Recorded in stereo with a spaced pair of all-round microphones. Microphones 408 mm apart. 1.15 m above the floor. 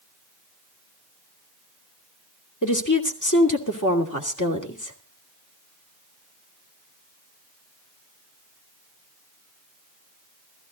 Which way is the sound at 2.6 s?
45° left (ahead or behind).